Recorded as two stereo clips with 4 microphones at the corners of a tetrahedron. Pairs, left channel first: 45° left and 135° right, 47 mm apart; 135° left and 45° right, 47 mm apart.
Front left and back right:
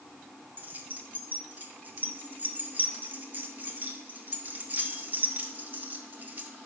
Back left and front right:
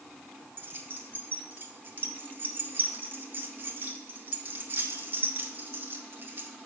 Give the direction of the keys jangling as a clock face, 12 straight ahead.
3 o'clock.